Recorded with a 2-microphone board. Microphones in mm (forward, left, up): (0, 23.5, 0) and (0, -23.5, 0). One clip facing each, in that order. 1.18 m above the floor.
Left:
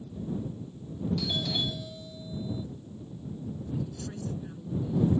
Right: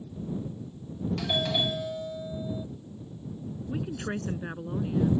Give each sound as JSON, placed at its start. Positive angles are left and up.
{"t": 1.2, "sound": "a doorbell", "side_deg": -50}
{"t": 3.7, "sound": "a woman speaking", "side_deg": -60}